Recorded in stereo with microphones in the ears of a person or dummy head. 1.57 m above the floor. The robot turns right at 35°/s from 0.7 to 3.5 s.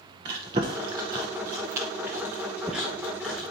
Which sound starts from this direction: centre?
Chewing, at 0.2 s.